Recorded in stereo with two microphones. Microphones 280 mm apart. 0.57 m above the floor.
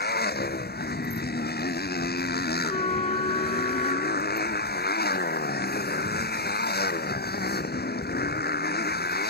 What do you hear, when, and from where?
0.0 s a motorcycle: 35° left (ahead or behind)
2.6 s a trumpet: 20° left (ahead or behind)